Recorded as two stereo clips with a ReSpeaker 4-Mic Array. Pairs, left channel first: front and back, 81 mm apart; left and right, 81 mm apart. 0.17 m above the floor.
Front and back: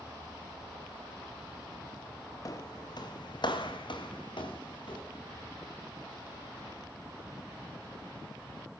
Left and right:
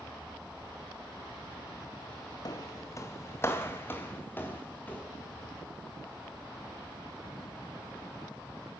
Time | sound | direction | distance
2.5 | footsteps | 50° left | 1.3 m